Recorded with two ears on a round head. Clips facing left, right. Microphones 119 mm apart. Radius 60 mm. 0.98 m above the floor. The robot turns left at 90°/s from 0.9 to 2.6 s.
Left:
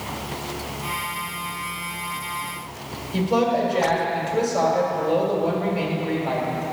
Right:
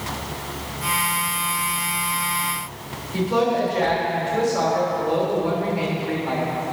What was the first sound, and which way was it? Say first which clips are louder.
A woman speaking: even; 20° left (ahead or behind).